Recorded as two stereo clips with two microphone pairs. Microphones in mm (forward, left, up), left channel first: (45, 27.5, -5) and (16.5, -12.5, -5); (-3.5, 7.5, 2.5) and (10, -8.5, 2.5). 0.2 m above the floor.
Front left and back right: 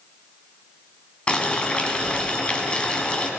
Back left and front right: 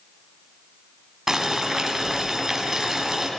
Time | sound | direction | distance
1.3 | boiling | 10° left | 1.7 m